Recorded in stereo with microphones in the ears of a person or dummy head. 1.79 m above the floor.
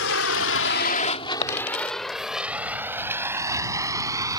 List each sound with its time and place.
0.0 s a vehicle: 75° left (ahead or behind); by 4.4 s 20° right (ahead or behind)
1.4 s a dropped coin: 40° left (ahead or behind)